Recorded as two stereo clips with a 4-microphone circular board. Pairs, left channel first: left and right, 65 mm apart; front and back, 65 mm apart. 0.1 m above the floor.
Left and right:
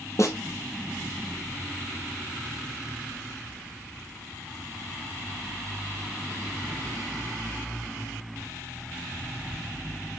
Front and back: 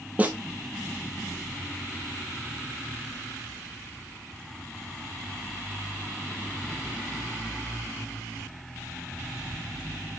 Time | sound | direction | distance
0.2 | a snare drum | 115° left | 1.6 m